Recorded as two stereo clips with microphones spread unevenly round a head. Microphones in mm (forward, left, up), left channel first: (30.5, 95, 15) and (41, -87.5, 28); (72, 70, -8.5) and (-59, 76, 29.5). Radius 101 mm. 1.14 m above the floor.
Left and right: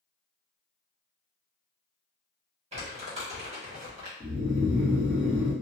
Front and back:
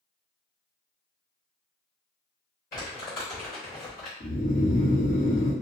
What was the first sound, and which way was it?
Crumpling, 30° right.